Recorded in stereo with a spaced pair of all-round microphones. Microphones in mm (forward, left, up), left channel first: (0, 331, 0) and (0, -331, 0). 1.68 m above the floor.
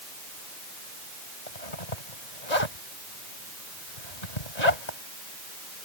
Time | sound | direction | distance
1.5 | a zipper | 85° left | ?